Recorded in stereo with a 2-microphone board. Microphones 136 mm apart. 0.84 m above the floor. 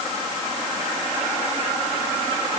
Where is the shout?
No shout in this recording.